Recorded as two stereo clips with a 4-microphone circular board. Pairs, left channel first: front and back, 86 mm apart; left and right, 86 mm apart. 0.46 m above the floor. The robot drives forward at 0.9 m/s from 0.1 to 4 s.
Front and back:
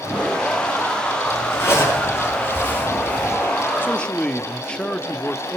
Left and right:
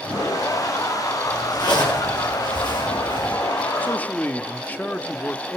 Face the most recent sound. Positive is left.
turn(degrees=60)